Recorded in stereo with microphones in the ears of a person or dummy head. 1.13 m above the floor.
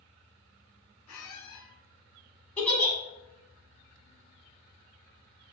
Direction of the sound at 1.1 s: 85° left.